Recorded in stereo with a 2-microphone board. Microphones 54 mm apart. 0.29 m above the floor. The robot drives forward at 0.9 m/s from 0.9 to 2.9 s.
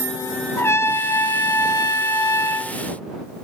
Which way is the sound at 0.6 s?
50° left (ahead or behind).